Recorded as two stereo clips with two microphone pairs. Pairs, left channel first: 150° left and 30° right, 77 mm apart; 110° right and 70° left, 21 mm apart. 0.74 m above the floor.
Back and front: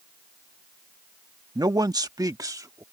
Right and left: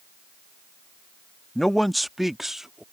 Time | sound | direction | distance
1.6 | a man speaking | 35° right | ?